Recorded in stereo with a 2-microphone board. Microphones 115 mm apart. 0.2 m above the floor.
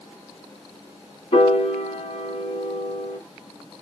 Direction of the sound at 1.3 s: 60° left (ahead or behind).